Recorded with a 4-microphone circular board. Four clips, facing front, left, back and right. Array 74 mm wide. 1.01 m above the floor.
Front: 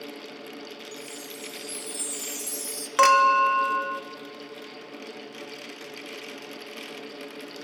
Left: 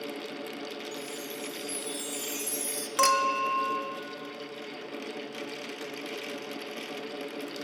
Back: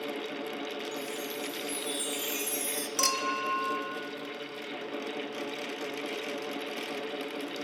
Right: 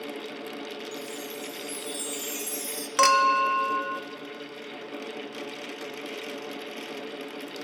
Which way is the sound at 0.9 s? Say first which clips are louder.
Right 2 dB, back 4 dB; 175° right.